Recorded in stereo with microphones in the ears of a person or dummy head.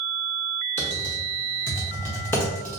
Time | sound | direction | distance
0.8 | typing on a keyboard | 15° left (ahead or behind) | 0.8 m